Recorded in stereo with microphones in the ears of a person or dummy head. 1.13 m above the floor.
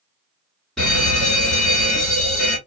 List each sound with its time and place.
0.8 s a fire alarm: centre (ahead or behind), 1.6 m